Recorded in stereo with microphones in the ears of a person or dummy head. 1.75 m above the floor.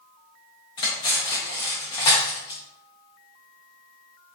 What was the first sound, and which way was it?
Cutlery clinking, 20° left (ahead or behind).